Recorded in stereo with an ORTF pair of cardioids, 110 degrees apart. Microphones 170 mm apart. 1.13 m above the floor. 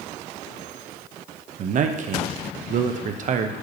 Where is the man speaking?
50° right, 0.7 m.